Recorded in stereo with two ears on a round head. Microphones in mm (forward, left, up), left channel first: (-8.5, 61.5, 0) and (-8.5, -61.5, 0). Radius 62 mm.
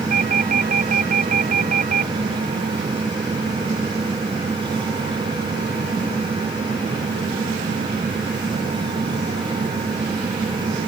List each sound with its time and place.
0.1 s a doorbell: 55° right (ahead or behind)